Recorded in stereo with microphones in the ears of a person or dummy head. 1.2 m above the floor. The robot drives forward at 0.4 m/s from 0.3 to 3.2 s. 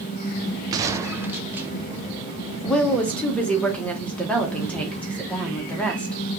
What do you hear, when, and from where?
0.7 s a gunshot: 20° right (ahead or behind), 0.5 m; by 1.7 s 10° right (ahead or behind), 0.8 m
2.6 s a woman speaking: 5° left (ahead or behind), 1.0 m